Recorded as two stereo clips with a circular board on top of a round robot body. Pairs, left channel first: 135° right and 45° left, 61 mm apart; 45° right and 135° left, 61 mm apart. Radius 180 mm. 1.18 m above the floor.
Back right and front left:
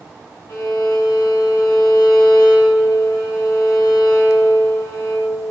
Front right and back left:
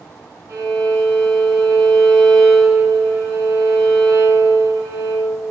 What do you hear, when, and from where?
0.5 s a violin: straight behind, 1.8 m